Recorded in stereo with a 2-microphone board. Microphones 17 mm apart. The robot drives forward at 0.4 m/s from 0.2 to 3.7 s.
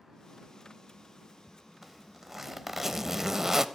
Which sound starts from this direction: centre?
A zipper, at 1.8 s.